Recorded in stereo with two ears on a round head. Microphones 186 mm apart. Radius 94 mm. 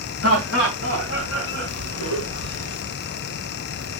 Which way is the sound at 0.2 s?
80° left.